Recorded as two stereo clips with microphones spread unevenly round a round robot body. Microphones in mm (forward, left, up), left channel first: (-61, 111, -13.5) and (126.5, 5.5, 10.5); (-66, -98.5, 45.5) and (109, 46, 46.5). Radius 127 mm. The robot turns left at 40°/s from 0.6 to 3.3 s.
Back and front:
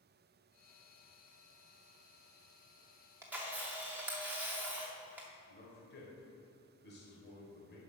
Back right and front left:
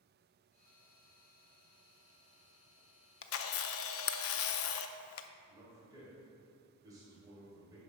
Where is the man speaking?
115° left, 2.5 m.